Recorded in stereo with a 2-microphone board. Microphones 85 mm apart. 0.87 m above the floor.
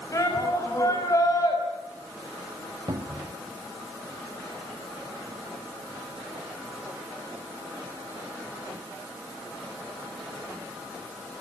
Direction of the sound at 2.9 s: 55° right (ahead or behind).